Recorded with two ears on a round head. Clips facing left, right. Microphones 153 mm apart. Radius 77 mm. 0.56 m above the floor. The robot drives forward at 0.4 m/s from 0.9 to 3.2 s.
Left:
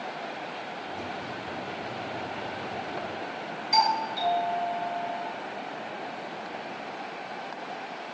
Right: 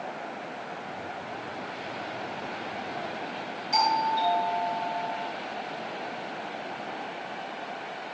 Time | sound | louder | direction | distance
3.7 | a doorbell | right 1 dB | 5° left (ahead or behind) | 5.5 m